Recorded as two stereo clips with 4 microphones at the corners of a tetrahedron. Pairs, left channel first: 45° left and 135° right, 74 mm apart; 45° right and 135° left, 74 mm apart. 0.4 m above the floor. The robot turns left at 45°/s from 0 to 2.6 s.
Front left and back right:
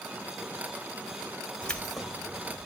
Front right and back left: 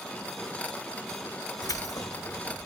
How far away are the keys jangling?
About 1.6 m.